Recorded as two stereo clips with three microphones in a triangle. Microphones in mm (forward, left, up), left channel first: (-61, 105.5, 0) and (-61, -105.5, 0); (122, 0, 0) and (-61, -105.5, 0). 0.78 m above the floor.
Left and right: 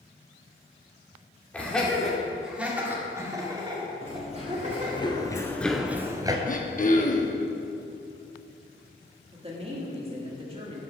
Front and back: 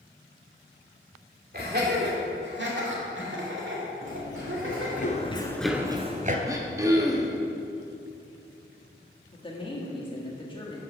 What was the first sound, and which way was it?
Laughter, 175° left.